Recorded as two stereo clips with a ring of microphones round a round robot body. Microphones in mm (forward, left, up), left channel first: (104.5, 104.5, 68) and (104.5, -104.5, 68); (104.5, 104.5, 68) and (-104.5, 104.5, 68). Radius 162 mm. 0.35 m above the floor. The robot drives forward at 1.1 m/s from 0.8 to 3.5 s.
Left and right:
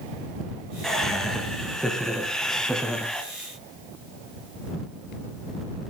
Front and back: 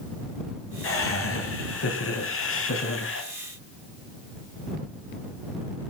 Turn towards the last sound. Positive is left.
turn(degrees=5)